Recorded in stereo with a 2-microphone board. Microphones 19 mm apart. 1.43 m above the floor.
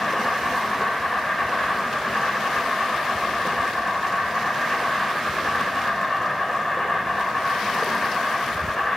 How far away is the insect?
About 5.5 m.